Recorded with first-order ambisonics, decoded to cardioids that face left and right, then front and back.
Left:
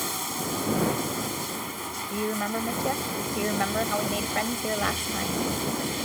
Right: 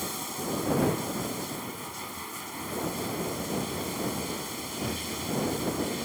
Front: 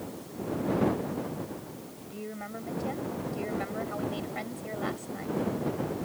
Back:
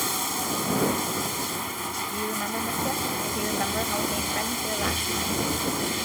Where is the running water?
165° left.